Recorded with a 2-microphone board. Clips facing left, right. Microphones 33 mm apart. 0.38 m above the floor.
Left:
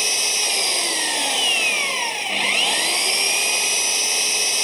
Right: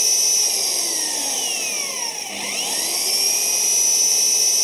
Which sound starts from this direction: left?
An engine running, at 0.0 s.